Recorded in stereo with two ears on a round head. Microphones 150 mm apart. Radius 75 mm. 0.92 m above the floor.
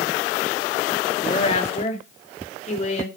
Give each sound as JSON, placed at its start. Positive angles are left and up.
{"t": 1.2, "sound": "a woman speaking", "side_deg": 35, "distance_m": 2.0}